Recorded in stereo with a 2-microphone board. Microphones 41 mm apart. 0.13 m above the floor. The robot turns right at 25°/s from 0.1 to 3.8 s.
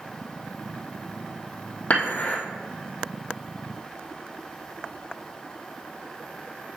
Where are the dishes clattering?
45° left (ahead or behind), 3 m; by 2.4 s 35° left (ahead or behind), 3 m.